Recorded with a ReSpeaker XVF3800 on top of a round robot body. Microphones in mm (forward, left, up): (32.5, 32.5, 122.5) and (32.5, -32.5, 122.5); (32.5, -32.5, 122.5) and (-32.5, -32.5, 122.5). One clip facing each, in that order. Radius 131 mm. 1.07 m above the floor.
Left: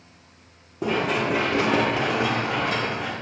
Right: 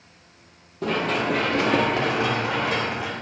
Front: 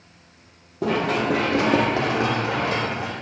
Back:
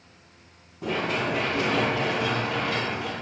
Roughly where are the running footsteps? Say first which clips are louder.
Even, front 5 dB; ahead.